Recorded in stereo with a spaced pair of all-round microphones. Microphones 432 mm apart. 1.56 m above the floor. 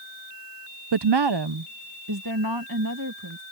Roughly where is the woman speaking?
Right.